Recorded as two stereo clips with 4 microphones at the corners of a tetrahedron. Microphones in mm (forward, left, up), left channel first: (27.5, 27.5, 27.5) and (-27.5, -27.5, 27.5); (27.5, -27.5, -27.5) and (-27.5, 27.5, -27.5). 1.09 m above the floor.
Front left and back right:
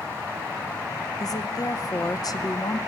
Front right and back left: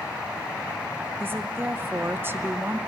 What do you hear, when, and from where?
1.2 s a woman speaking: 75° left, 0.7 m